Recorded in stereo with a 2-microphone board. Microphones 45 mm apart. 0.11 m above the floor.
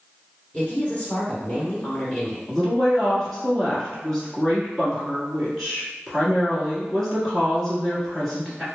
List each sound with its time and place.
0.5 s a woman speaking: 30° left (ahead or behind), 1.2 m
2.5 s a woman speaking: 10° left (ahead or behind), 1.4 m